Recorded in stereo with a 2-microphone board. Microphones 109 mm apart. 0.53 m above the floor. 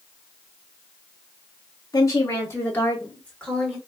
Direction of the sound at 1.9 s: 35° left (ahead or behind).